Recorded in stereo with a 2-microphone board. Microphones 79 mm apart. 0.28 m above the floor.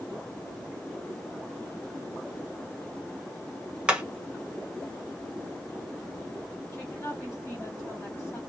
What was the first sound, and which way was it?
Hammering, 10° right (ahead or behind).